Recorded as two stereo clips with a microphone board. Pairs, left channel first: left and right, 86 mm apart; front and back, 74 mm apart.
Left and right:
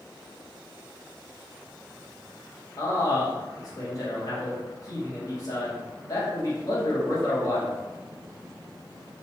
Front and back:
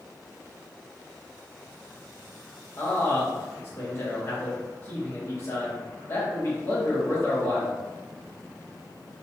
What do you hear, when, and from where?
2.8 s a man speaking: 50° left, 1.0 m